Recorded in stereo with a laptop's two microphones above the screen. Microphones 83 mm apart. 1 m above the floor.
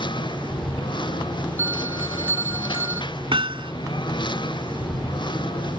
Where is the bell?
30° right (ahead or behind).